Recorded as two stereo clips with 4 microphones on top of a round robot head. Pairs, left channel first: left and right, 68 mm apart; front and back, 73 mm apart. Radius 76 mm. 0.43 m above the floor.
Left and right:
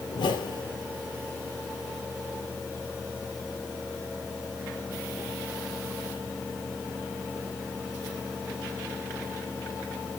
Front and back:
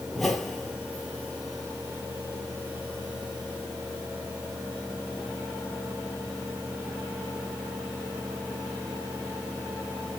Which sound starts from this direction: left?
A whoosh, at 0.1 s.